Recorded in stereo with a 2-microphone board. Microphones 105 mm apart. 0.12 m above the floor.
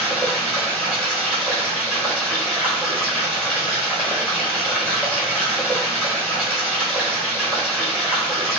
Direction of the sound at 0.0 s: 5° right (ahead or behind).